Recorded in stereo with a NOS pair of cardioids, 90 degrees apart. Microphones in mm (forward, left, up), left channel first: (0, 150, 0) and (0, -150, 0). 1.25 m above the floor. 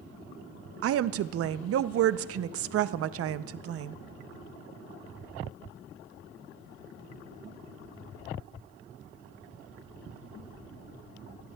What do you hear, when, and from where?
0.8 s a woman speaking: 55° right, 0.5 m